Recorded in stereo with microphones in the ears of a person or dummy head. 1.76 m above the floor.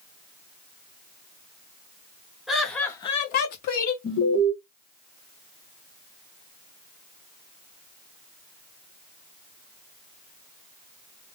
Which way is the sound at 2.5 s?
Centre (ahead or behind).